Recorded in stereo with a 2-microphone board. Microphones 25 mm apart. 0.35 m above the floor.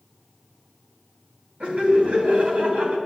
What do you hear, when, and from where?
1.6 s laughter: 60° right (ahead or behind), 3 m